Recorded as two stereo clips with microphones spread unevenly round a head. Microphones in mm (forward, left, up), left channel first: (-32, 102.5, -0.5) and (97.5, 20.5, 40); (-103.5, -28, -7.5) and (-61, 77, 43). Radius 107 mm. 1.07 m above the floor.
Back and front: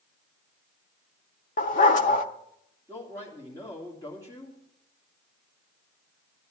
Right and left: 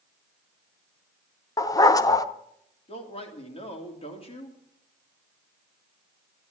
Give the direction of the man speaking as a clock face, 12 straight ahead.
5 o'clock.